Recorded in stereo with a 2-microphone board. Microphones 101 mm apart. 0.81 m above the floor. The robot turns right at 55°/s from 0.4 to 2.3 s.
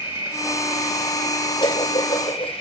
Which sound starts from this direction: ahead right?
An insect, at 0.0 s.